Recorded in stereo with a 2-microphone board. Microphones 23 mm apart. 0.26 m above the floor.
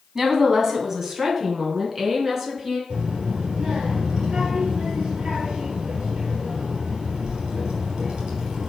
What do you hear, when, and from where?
0.1 s a woman speaking: 20° right (ahead or behind), 2.5 m
2.9 s a child speaking: 50° right (ahead or behind), 3.5 m